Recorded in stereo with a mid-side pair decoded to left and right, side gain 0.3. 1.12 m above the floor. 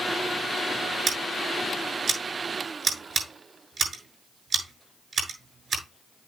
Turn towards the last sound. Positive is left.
turn(degrees=-60)